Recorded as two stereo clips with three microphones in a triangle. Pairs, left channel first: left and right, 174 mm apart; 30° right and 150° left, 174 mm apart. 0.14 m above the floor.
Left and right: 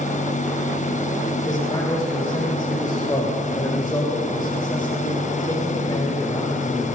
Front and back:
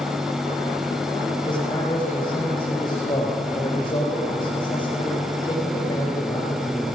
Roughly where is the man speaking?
Ahead left.